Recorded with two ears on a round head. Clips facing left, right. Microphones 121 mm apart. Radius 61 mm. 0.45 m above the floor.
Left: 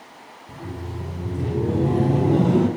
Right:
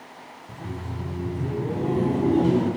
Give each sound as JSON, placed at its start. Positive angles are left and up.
{"t": 0.5, "sound": "laughter", "side_deg": 5, "distance_m": 1.3}